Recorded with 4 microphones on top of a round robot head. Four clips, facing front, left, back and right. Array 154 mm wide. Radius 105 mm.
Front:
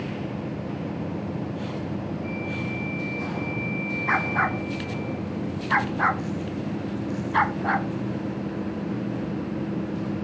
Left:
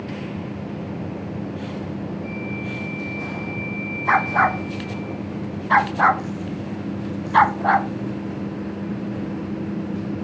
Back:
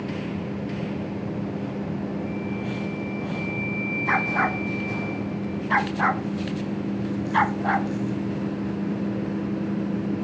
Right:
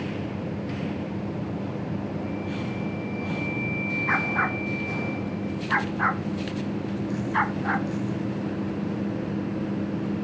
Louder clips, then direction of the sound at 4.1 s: Left 9 dB, back 1 dB; 95° left.